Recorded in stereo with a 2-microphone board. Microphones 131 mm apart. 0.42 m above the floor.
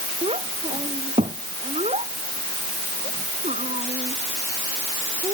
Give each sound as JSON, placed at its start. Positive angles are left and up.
{"t": 0.2, "sound": "a child speaking", "side_deg": -50}